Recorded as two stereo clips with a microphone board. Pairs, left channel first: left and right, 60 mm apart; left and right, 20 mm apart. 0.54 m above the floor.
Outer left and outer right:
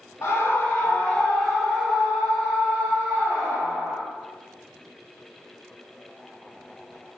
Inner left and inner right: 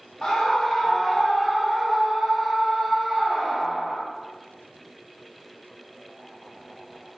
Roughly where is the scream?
Left.